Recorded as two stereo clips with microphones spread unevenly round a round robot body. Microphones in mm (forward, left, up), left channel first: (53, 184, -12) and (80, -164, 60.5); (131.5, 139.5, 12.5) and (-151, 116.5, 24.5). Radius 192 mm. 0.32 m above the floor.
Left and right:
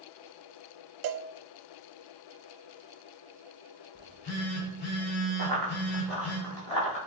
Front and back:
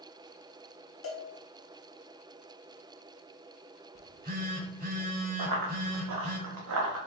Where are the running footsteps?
150° right, 1.7 m; by 7.0 s 170° left, 2.5 m.